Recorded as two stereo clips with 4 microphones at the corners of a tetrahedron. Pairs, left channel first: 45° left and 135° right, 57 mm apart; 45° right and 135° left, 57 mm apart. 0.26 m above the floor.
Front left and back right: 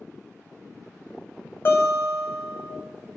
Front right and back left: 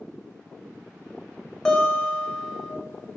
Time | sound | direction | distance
1.6 | a guitar | 30° left | 1.9 m